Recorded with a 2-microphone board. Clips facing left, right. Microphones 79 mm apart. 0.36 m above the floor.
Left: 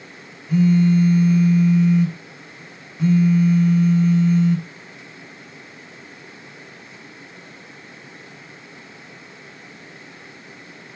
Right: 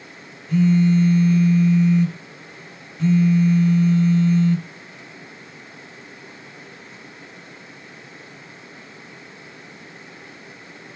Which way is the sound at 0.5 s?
10° left (ahead or behind).